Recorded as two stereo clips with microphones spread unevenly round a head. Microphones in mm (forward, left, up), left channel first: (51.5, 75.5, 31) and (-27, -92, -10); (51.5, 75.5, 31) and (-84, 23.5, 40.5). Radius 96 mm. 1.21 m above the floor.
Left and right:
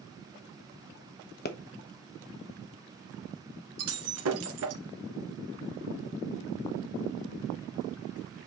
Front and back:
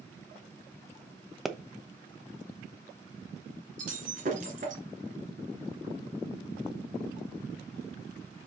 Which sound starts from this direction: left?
A pop, at 1.4 s.